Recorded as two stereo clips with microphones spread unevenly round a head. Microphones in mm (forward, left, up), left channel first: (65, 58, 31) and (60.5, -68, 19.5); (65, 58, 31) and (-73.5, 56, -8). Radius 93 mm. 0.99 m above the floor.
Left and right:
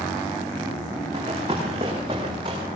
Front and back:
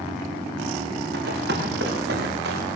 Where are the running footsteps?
160° right, 6.5 m.